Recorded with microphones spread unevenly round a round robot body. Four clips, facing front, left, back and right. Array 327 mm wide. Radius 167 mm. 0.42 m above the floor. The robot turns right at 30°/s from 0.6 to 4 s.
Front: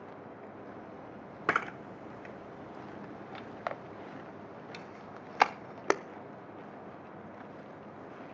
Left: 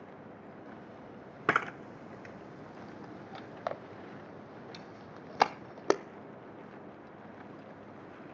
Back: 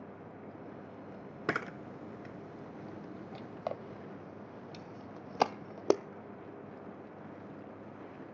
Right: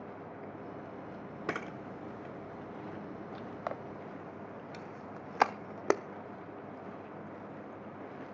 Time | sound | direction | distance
1.5 | a camera shutter | 85° left | 0.5 m